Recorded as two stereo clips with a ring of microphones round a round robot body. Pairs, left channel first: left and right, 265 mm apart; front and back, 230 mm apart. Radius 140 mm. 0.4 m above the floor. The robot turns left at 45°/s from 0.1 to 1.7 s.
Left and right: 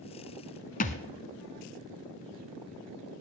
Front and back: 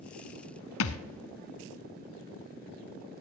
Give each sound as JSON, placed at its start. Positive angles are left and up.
{"t": 0.8, "sound": "a thud", "azimuth_deg": 30, "distance_m": 1.0}